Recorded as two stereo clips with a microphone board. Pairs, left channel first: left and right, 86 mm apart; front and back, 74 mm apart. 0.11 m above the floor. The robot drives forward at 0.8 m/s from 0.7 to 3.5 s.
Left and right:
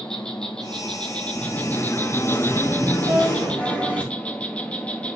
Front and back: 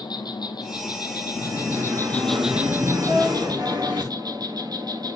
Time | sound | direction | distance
0.0 | an insect | 10° left | 1.4 m
1.4 | singing | 140° left | 1.1 m
3.0 | a violin | 155° right | 5 m